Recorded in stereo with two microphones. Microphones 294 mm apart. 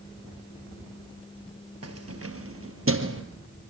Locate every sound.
1.8 s keys jangling: 55° right (ahead or behind), 2 m; by 3.2 s 45° right (ahead or behind), 2.5 m